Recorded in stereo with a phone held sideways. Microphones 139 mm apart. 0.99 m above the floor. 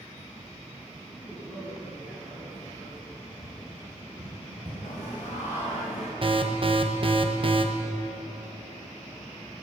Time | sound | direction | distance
1.1 | a man speaking | centre (ahead or behind) | 6 m
3.4 | tapping | 30° right (ahead or behind) | 6 m
4.8 | singing | 60° left (ahead or behind) | 4.5 m
6.2 | an alarm | 45° right (ahead or behind) | 1.0 m